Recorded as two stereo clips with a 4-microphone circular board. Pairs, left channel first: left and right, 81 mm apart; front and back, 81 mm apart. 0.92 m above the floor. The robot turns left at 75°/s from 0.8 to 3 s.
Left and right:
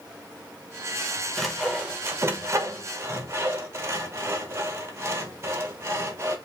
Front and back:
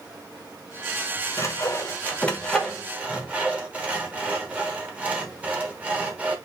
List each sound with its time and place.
1.4 s sawing: 5° left, 1.0 m; by 6.4 s 120° right, 1.0 m